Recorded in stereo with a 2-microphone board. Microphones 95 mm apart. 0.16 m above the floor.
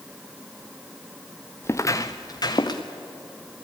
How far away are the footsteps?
About 1.1 m.